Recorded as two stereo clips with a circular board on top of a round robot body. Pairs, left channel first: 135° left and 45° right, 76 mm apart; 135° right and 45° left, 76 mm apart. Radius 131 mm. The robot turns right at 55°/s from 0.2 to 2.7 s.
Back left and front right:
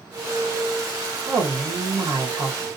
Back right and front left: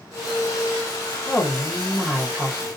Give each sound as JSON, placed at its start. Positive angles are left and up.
{"t": 1.3, "sound": "a woman speaking", "azimuth_deg": -65, "distance_m": 1.4}